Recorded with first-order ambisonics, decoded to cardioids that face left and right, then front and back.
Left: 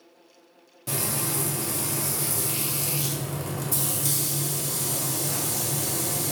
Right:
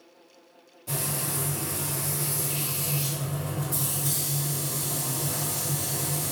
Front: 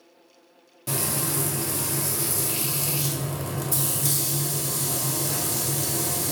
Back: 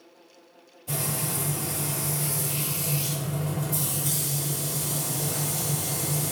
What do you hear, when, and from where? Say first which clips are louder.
0.9 s frying: left 3 dB, front 3 dB; 35° left, 0.6 m